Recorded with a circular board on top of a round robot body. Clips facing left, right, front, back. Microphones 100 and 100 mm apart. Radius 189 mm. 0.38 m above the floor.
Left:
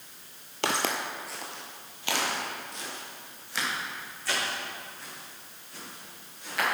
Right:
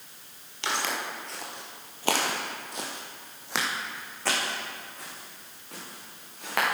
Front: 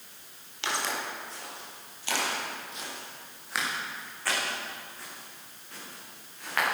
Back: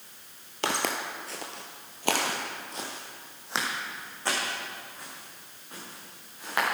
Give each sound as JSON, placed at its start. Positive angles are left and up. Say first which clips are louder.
{"t": 0.6, "sound": "footsteps", "louder": "left 2 dB, back 3 dB", "azimuth_deg": 130, "distance_m": 0.8}